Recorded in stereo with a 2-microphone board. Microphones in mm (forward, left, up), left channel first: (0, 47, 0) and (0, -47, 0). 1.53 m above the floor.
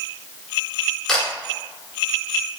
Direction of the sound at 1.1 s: 10° left (ahead or behind).